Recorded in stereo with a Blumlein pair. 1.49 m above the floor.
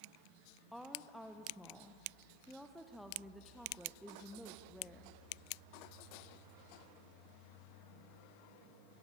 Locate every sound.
0.7 s a woman speaking: straight ahead, 1.1 m